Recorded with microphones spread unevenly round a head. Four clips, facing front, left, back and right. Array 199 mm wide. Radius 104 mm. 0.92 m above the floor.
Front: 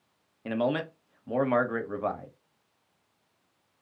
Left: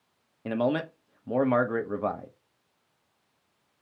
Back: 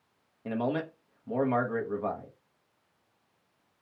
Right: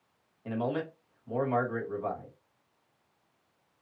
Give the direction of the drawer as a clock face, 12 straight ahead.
No drawer in this recording.